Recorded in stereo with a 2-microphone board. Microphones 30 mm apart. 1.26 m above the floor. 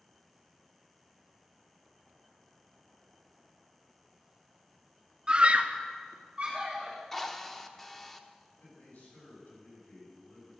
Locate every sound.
5.3 s a scream: 25° right (ahead or behind), 0.7 m; by 7.0 s 30° right (ahead or behind), 2.5 m
7.1 s a drill: 15° left (ahead or behind), 0.7 m
8.5 s a man speaking: 85° left, 5.5 m